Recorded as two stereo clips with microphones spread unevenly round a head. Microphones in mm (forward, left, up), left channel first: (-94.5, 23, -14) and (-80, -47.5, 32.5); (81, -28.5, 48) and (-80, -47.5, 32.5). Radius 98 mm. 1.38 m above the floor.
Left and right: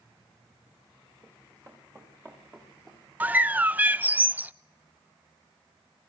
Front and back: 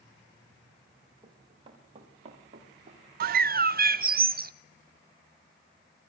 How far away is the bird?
About 0.5 m.